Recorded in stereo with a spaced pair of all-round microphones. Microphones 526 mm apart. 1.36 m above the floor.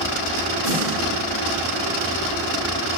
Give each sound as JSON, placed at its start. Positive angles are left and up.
{"t": 0.6, "sound": "a snare drum", "side_deg": 80, "distance_m": 3.5}